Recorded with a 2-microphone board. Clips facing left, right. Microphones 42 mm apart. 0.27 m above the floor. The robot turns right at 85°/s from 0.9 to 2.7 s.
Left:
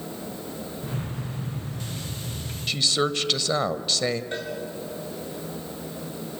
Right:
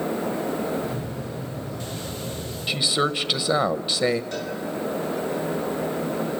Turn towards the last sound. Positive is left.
turn(degrees=25)  # may be behind; listen again after turning